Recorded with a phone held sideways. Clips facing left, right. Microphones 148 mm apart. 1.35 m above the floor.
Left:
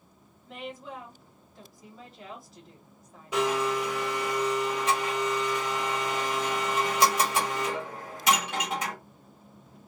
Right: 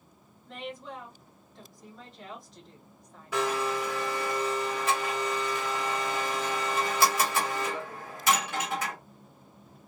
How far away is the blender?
About 1.2 m.